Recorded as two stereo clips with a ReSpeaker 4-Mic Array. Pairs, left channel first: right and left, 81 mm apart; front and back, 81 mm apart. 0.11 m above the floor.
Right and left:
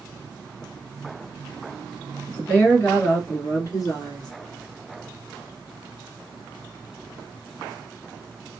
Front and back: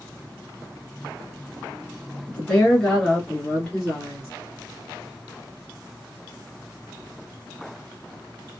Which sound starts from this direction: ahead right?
A woman speaking, at 2.3 s.